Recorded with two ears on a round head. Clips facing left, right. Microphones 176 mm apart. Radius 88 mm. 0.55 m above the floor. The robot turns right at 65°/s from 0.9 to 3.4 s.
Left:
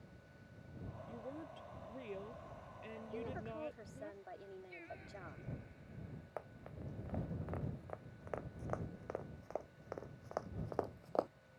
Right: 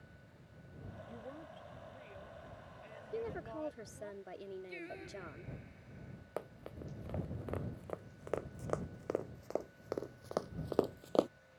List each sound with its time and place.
1.1 s a woman speaking: 5° right; by 4.1 s 150° left
3.1 s a woman speaking: 40° right (ahead or behind)
4.7 s singing: 65° right (ahead or behind)
6.4 s running footsteps: 50° right (ahead or behind); by 11.3 s 45° right (ahead or behind)